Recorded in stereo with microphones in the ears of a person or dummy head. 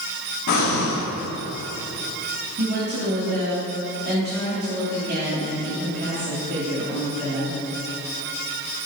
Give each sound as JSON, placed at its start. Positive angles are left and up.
{"t": 0.5, "sound": "breathing", "side_deg": 60, "distance_m": 1.3}
{"t": 2.6, "sound": "a woman speaking", "side_deg": -55, "distance_m": 2.0}